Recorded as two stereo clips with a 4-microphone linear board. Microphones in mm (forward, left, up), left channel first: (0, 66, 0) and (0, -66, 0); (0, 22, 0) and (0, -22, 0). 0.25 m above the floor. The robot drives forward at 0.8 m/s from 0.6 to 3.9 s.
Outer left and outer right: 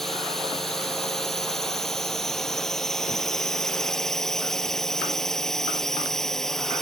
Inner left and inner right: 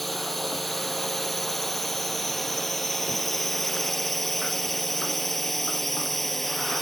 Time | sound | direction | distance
0.0 | a drone | 5° left (ahead or behind) | ?